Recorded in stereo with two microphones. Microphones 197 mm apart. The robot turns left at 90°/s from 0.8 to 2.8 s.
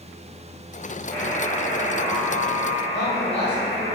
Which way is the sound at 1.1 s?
175° left.